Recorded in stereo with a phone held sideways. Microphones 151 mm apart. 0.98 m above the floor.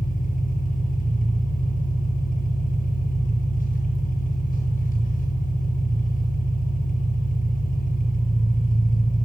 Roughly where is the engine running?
Left.